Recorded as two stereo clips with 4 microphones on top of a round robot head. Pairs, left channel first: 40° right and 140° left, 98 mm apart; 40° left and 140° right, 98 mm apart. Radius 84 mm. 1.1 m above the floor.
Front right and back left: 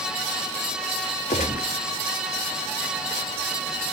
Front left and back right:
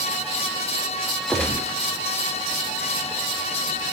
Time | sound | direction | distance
1.3 | a gunshot | 40° right | 0.8 m